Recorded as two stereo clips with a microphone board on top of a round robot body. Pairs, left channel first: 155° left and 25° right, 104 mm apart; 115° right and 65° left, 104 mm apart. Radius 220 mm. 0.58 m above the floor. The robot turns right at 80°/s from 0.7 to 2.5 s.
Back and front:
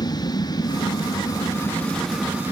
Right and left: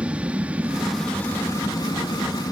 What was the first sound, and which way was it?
An aircraft, 140° left.